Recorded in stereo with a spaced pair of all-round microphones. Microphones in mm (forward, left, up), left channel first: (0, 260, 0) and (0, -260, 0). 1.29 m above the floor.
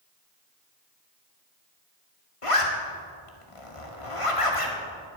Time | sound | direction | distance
2.4 | a zipper | 80° left | 2 m